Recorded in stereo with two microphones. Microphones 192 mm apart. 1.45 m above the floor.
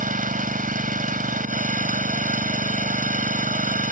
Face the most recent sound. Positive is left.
turn(degrees=-45)  # may be behind; listen again after turning